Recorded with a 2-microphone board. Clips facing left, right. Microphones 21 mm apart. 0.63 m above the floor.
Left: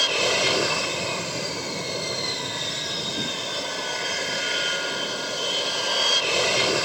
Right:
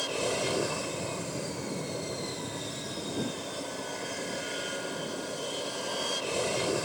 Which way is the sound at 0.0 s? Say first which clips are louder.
Left 9 dB; 55° left (ahead or behind).